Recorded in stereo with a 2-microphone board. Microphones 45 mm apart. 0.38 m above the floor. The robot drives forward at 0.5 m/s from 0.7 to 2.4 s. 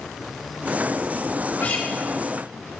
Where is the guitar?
50° left (ahead or behind), 2.5 m; by 1.9 s 45° left (ahead or behind), 2.5 m.